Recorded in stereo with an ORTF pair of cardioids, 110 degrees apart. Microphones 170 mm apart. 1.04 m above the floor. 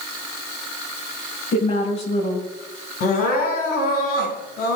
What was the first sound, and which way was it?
A woman speaking, 40° left.